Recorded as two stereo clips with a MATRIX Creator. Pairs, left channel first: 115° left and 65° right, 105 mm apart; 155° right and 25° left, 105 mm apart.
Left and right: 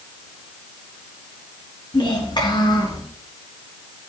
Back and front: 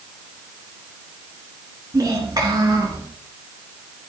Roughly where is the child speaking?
Left.